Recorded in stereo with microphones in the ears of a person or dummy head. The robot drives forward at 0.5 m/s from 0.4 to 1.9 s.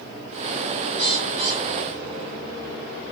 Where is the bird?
30° right (ahead or behind), 2.5 m; by 2.4 s 35° right (ahead or behind), 2 m.